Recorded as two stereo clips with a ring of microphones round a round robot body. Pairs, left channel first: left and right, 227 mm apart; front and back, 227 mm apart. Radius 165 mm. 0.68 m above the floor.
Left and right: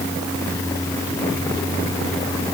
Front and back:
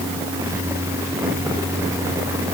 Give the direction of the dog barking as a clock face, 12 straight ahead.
No dog barking in this recording.